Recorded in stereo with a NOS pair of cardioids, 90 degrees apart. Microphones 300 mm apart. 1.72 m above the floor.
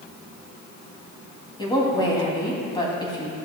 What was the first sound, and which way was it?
A woman speaking, 15° left.